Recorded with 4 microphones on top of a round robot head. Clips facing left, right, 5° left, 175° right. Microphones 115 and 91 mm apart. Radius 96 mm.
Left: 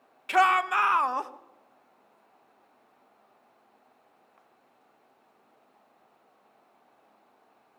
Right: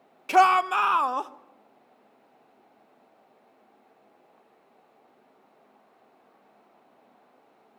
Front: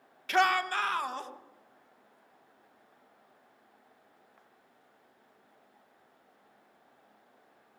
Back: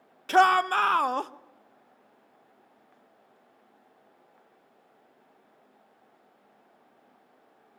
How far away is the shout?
About 0.9 m.